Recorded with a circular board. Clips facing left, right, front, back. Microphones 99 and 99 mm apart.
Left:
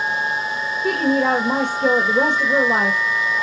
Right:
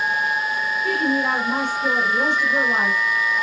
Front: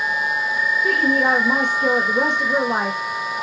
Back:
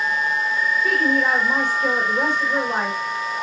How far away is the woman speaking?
About 2 m.